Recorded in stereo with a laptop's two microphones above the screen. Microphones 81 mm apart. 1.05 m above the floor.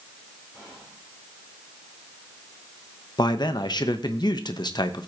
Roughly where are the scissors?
No scissors in this recording.